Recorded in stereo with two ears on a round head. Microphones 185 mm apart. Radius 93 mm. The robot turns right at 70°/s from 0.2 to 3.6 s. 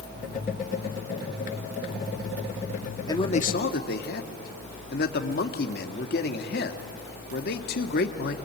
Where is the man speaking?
20° left, 1.8 m; by 8.3 s 55° left, 1.8 m.